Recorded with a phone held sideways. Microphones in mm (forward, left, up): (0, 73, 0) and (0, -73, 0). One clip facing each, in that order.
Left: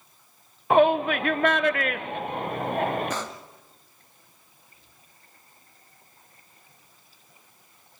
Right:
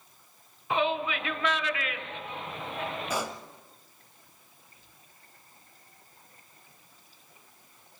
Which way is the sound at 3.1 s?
10° right (ahead or behind).